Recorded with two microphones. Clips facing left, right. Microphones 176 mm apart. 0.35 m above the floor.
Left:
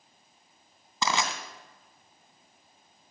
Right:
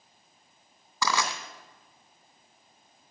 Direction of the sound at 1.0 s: 25° left (ahead or behind).